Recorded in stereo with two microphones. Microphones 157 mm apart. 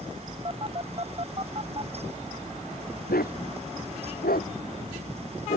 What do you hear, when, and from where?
0.5 s a phone buzzing: 40° right (ahead or behind)
3.1 s a dog barking: 85° left